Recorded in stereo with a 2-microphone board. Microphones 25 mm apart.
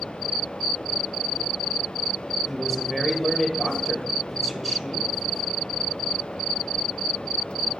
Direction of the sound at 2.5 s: 10° left (ahead or behind).